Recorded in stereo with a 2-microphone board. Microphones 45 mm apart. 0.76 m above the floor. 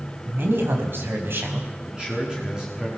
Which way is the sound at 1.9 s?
20° right (ahead or behind).